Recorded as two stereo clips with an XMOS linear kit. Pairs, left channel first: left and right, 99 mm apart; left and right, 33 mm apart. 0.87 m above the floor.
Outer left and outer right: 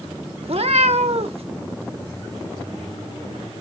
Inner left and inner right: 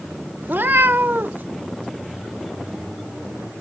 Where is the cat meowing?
70° right (ahead or behind), 0.8 m.